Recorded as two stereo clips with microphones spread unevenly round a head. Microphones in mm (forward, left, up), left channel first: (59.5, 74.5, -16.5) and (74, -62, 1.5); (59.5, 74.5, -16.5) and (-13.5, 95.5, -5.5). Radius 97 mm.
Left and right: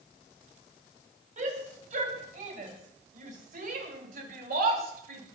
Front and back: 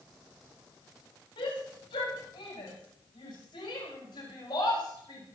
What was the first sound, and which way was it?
A shout, 55° right.